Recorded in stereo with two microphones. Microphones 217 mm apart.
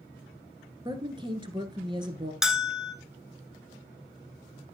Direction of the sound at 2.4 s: Centre (ahead or behind).